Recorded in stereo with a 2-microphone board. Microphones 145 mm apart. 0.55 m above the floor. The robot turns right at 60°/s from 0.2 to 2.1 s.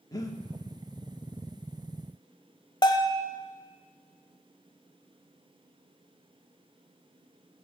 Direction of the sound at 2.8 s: 30° left (ahead or behind).